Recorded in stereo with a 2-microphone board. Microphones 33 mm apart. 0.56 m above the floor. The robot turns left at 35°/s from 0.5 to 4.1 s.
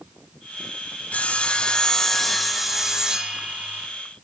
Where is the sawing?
45° left, 1.6 m; by 3.9 s 50° right, 1.6 m.